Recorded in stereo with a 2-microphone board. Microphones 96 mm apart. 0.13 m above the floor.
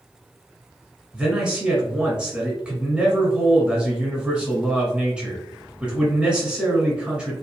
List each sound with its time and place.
1.1 s a man speaking: 10° right (ahead or behind), 1.8 m